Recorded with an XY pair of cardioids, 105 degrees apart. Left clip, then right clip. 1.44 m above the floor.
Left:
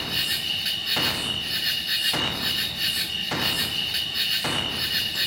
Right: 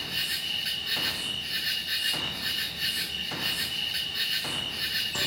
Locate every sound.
0.0 s an insect: 30° left, 2.5 m